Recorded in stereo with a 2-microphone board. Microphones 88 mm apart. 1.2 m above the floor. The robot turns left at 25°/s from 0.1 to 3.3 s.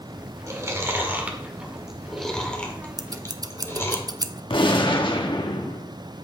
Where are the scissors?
50° right (ahead or behind), 0.6 m; by 4.4 s 45° right (ahead or behind), 0.6 m.